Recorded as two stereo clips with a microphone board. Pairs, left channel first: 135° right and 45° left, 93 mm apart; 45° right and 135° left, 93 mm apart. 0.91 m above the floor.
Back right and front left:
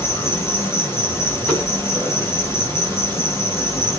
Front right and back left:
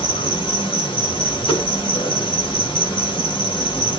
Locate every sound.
0.0 s an insect: 70° right, 6 m
1.5 s a whoosh: 65° right, 8.5 m